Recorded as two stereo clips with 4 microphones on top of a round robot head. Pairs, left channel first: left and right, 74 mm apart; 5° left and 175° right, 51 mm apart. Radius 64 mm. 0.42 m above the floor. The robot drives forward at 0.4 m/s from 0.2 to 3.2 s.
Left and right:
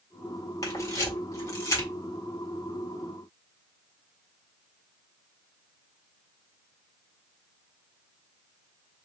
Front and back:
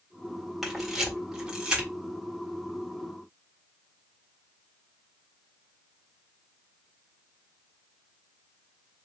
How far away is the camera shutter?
About 1.8 m.